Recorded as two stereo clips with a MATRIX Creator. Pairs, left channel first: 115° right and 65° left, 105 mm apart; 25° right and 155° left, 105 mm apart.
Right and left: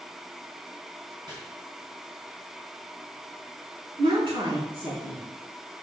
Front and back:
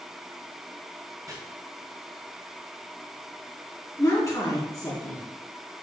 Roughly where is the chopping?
Left.